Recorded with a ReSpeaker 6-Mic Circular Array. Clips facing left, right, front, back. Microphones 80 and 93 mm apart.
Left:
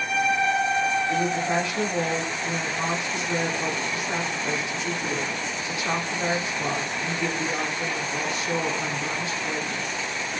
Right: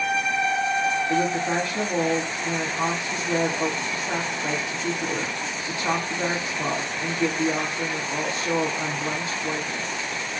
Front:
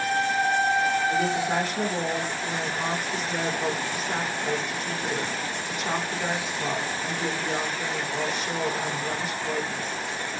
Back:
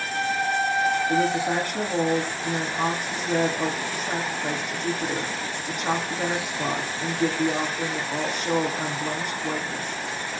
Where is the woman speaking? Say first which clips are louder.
Right 1 dB, back 2 dB; 150° right, 9.5 m.